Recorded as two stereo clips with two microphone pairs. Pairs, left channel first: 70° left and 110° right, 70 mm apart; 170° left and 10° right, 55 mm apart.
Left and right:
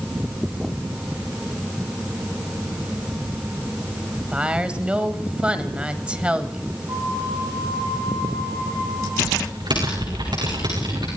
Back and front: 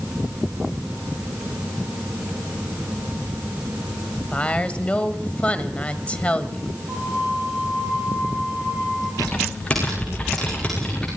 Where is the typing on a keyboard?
120° right, 9 m.